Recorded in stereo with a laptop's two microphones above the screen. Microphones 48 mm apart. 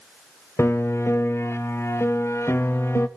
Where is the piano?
60° left (ahead or behind), 1.1 m.